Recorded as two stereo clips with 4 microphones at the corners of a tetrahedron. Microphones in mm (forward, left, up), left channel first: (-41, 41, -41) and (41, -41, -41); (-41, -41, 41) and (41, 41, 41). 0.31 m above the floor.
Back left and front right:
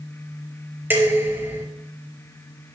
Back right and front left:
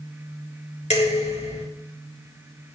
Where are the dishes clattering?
115° right, 3.5 m.